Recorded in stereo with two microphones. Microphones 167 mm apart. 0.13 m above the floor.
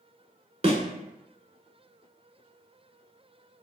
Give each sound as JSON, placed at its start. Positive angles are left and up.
{"t": 0.6, "sound": "a thud", "side_deg": -40, "distance_m": 0.6}